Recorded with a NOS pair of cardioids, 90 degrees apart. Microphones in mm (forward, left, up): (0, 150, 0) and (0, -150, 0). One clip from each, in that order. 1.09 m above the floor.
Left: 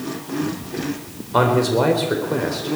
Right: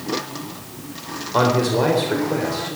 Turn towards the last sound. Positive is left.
turn(degrees=10)